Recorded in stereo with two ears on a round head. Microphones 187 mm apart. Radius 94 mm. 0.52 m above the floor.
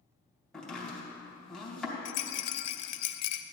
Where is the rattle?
85° left, 0.6 m.